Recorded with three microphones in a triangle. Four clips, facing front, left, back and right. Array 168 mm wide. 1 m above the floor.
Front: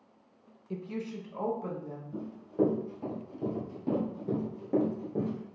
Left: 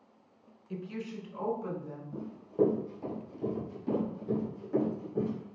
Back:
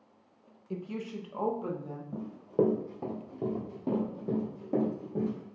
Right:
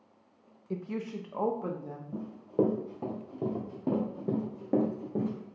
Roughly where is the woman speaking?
Right.